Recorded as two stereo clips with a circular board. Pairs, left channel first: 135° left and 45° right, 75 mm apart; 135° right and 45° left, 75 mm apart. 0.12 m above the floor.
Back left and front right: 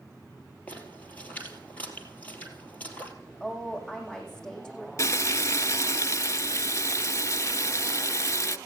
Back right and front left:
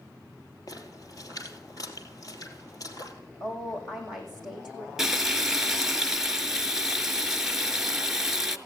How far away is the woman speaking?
About 7.5 m.